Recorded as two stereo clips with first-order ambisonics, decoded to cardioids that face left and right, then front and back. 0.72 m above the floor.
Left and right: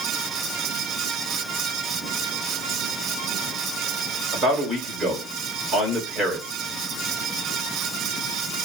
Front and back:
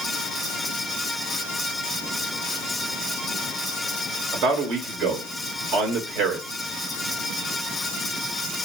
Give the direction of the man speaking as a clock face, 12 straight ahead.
5 o'clock.